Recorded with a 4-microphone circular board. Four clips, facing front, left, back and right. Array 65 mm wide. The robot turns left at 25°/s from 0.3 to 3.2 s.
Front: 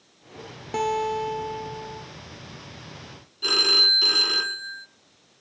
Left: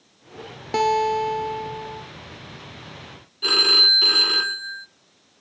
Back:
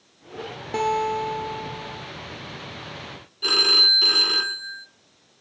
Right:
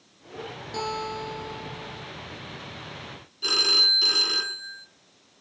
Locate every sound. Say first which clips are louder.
0.7 s a guitar: left 12 dB, back 2 dB; 100° left, 1.6 m; by 2.0 s 65° left, 1.6 m
3.4 s a phone ringing: left 5 dB, back 2 dB; 110° left, 0.9 m